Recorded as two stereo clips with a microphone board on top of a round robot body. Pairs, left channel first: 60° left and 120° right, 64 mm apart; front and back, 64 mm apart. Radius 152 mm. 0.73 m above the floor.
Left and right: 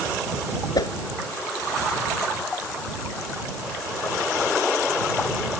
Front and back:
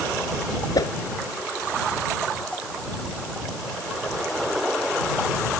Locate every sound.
0.8 s a whoosh: 30° left